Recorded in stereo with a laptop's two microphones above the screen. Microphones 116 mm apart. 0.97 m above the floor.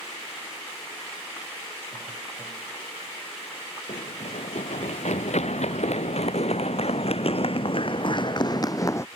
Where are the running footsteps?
80° left; by 9.1 s 25° left (ahead or behind).